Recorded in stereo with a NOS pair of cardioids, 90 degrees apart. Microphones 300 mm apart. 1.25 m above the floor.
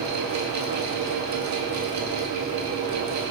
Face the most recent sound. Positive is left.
turn(degrees=-65)